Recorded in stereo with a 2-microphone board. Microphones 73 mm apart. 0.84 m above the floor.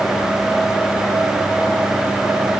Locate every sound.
Only background noise.